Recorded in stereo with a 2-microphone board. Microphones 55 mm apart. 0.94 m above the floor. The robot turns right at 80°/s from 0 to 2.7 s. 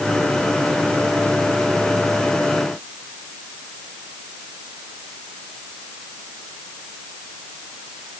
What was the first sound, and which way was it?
Only background noise.